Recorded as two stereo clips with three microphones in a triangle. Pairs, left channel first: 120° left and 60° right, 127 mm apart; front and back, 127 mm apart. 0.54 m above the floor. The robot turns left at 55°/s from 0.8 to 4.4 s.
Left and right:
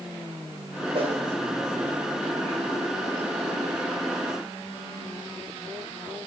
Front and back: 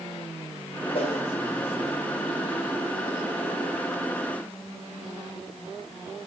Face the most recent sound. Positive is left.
turn(degrees=145)